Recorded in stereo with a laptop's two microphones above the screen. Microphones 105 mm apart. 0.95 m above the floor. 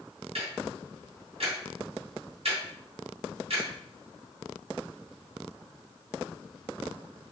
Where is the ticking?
75° right (ahead or behind), 2.5 m.